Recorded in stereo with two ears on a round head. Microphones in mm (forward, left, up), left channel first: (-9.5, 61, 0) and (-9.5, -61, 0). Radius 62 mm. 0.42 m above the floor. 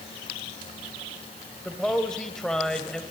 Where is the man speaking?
5° left (ahead or behind), 1.6 m.